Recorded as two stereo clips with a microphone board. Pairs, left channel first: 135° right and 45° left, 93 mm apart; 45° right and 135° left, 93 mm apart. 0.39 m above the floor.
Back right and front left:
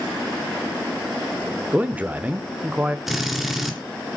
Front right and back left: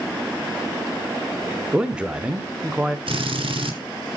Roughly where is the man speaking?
Left.